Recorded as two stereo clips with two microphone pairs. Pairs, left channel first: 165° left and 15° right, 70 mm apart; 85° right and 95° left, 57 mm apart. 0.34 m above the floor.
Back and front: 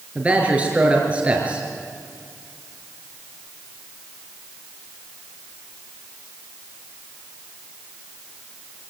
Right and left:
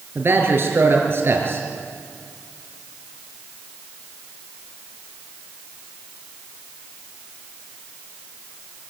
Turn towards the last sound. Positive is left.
turn(degrees=55)